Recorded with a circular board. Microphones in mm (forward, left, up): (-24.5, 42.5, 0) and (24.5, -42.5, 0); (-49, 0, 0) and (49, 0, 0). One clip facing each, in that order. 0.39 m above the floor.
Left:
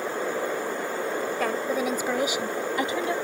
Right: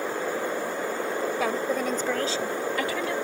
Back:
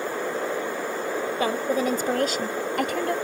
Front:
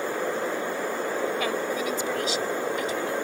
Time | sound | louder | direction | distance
1.4 | a woman speaking | left 2 dB, back 4 dB | 145° right | ?